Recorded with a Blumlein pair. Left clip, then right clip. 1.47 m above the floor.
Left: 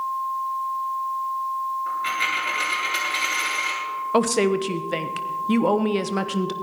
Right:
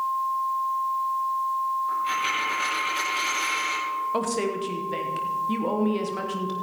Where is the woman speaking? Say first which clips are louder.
Left 6 dB; 65° left, 1.1 m.